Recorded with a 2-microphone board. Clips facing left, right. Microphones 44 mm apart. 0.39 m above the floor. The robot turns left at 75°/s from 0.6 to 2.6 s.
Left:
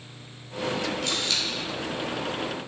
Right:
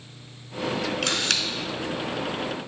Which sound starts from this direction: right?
A camera shutter, at 1.0 s.